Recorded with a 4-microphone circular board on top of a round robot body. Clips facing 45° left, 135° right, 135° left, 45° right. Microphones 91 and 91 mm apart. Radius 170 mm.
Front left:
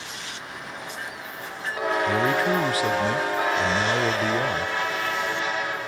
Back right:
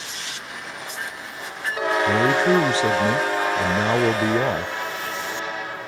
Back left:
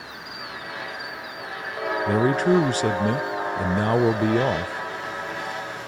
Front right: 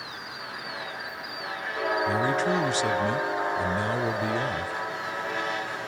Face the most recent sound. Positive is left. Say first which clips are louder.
# back right 5 dB, back left 9 dB
turn(degrees=165)